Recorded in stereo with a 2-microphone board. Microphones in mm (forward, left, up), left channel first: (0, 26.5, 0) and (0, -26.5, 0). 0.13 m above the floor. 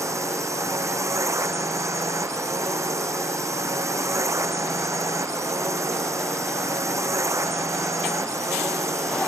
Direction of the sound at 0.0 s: 75° right (ahead or behind).